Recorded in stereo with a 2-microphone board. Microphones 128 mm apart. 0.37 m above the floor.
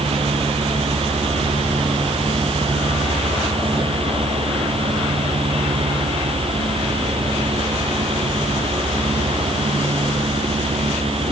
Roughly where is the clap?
I don't hear a clap.